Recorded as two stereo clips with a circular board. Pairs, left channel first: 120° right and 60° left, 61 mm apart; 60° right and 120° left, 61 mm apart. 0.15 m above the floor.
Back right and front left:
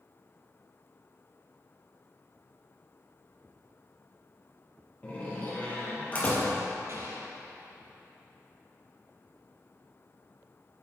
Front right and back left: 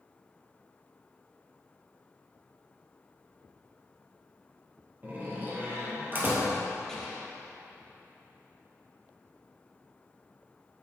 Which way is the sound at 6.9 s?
25° left.